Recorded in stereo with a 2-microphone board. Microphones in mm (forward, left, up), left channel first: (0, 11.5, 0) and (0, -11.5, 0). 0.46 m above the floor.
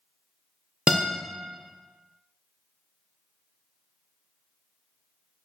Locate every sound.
0.9 s a guitar: 30° right (ahead or behind), 0.6 m